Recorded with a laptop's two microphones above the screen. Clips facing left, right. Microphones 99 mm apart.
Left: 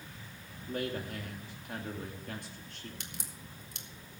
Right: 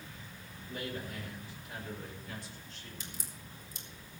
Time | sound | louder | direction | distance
0.6 | a man speaking | left 4 dB | 60° left (ahead or behind) | 2.5 m
3.0 | a crack | left 1 dB | 65° left (ahead or behind) | 1.4 m